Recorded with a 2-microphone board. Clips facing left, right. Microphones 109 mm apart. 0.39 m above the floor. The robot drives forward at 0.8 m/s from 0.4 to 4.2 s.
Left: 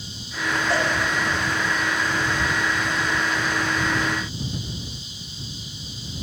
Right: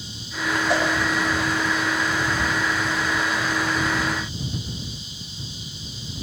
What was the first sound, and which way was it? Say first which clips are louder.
A cowbell: right 1 dB; 15° right (ahead or behind).